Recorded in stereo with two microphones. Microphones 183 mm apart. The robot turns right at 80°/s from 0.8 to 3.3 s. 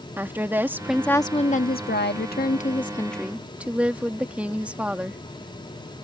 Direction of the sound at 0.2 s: 10° right.